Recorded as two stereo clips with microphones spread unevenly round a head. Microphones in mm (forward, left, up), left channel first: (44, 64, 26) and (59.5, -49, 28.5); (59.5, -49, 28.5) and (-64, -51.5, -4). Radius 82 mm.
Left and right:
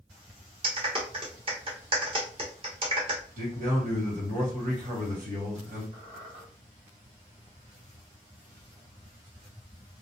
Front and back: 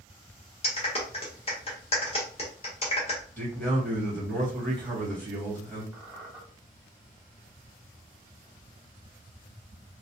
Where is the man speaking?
80° right, 1.5 m.